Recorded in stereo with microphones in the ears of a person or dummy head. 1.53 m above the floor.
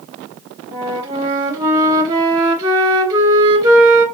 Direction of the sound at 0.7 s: 20° right (ahead or behind).